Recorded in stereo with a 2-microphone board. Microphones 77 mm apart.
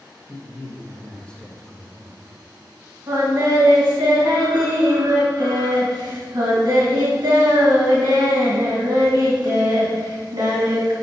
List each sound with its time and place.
0.3 s a man speaking: 20° left (ahead or behind), 1.3 m; by 2.2 s 5° right (ahead or behind), 1.0 m
3.1 s singing: 60° right (ahead or behind), 2.0 m